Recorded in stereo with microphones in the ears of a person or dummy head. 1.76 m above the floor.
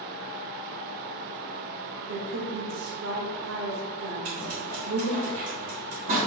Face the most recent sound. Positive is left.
turn(degrees=-55)  # may be behind; listen again after turning